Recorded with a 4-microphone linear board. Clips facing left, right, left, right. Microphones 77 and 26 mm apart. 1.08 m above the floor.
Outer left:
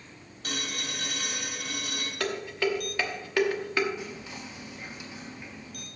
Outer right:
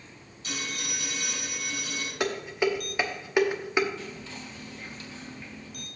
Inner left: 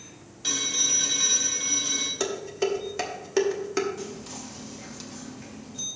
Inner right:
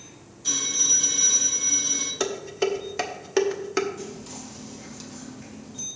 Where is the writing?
No writing in this recording.